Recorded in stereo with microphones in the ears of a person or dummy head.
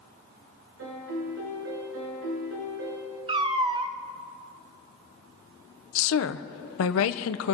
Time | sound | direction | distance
0.8 | a piano | 65° right (ahead or behind) | 3.5 m
3.3 | a cat meowing | 20° right (ahead or behind) | 0.6 m
6.0 | a woman speaking | 75° left (ahead or behind) | 0.8 m